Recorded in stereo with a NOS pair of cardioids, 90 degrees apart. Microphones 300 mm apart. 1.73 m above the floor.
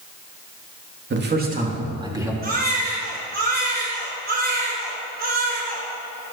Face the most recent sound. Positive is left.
turn(degrees=-30)